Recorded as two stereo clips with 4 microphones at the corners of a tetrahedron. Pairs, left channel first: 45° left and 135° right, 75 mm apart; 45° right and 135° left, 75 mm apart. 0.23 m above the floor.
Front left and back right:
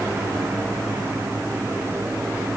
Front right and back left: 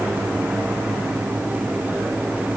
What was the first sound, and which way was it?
Only background noise.